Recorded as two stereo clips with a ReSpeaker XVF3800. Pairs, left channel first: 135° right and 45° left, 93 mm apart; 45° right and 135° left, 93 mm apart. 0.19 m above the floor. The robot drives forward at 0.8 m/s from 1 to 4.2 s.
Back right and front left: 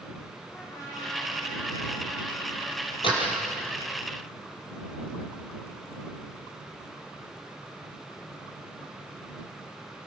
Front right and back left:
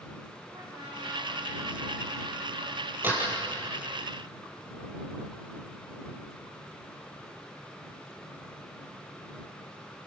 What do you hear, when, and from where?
0.5 s a trumpet: 170° left, 7.5 m; by 2.9 s 175° left, 9 m
3.0 s a door slam: 155° right, 4 m; by 3.3 s 160° right, 4.5 m